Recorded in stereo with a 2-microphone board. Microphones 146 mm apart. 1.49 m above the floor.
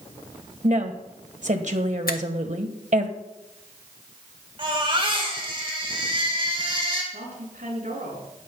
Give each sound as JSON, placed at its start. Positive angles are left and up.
{"t": 0.6, "sound": "a woman speaking", "side_deg": -55, "distance_m": 1.5}
{"t": 2.1, "sound": "a finger snap", "side_deg": 90, "distance_m": 0.9}
{"t": 4.6, "sound": "a baby crying", "side_deg": -35, "distance_m": 4.0}
{"t": 7.1, "sound": "a woman speaking", "side_deg": -70, "distance_m": 6.5}